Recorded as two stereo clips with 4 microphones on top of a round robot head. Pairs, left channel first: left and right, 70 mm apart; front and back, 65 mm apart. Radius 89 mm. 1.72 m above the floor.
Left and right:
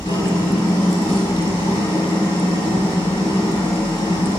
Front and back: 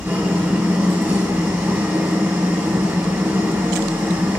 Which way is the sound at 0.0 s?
120° left.